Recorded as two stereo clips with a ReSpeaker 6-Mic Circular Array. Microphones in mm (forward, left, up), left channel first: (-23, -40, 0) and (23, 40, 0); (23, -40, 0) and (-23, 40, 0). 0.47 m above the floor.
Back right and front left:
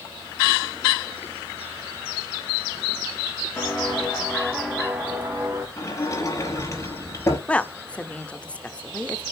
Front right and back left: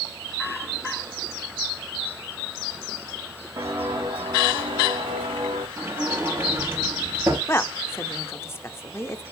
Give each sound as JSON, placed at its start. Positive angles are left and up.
{"t": 3.6, "sound": "footsteps", "azimuth_deg": 170, "distance_m": 4.5}
{"t": 5.8, "sound": "a sliding door", "azimuth_deg": -175, "distance_m": 5.5}
{"t": 7.5, "sound": "a woman speaking", "azimuth_deg": -60, "distance_m": 0.7}